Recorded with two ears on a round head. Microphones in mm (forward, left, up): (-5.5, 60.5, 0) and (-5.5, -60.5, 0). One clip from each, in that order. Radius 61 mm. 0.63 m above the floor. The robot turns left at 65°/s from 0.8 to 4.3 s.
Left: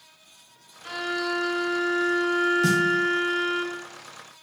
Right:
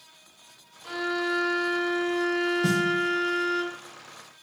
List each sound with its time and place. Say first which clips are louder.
0.8 s a violin: even; 95° left, 1.1 m; by 3.6 s 85° right, 1.1 m
2.6 s a snare drum: left 3 dB; 40° left (ahead or behind), 0.6 m; by 2.8 s 50° left (ahead or behind), 0.6 m